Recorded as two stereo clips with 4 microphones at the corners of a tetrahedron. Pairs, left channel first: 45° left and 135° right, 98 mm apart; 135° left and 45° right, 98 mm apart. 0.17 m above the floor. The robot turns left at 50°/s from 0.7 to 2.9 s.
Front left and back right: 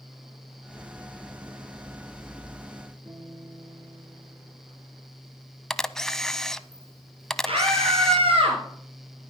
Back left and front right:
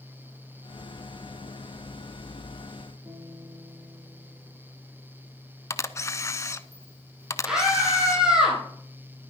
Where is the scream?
125° right, 4.5 m.